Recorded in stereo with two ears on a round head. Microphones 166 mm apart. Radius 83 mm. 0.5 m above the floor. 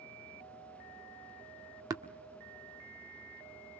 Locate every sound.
1.9 s tapping: 20° right (ahead or behind), 1.4 m